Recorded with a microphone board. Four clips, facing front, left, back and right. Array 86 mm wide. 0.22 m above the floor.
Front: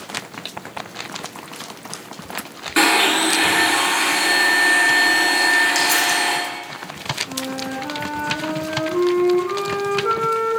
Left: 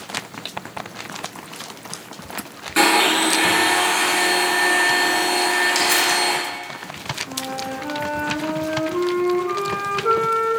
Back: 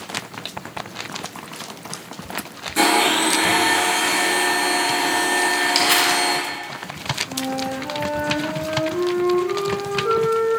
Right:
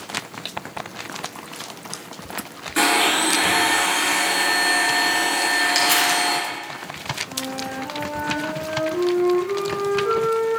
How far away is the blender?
About 2.5 m.